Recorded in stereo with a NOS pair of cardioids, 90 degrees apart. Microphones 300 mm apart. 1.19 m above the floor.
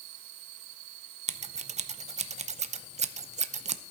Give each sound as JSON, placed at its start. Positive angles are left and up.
{"t": 1.3, "sound": "scissors", "azimuth_deg": -25, "distance_m": 0.6}